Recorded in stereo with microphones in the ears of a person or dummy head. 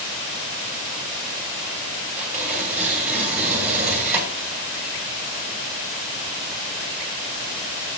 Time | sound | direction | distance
2.2 | tearing paper | 10° right (ahead or behind) | 4.5 m